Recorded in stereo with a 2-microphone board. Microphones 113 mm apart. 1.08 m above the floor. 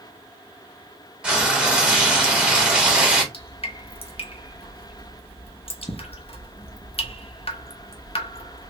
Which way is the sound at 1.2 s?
10° right (ahead or behind).